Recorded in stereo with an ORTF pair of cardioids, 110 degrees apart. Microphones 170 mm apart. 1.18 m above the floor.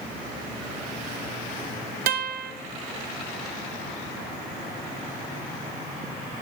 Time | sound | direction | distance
2.1 | a guitar | 60° right | 1.0 m